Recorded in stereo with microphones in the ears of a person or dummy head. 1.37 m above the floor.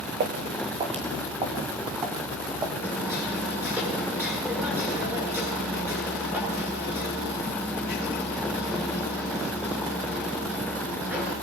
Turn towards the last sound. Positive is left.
turn(degrees=-20)  # may be behind; listen again after turning